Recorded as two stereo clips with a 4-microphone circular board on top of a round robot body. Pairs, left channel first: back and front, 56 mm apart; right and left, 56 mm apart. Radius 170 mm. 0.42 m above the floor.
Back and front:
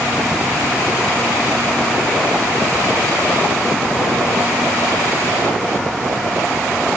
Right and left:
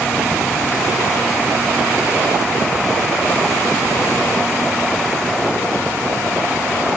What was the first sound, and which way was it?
Only background noise.